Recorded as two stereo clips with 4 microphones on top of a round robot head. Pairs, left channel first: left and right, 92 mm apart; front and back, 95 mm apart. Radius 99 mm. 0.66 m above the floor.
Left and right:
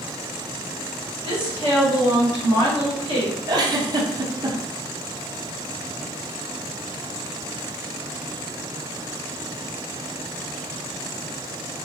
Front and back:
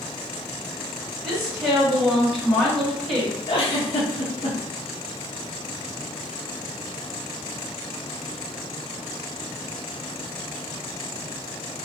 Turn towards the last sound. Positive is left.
turn(degrees=-40)